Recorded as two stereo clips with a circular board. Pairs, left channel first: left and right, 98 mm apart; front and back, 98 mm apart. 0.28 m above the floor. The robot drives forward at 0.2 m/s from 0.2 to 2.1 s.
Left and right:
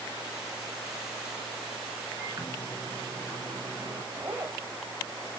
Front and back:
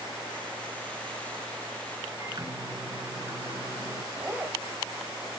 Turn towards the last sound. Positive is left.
turn(degrees=-135)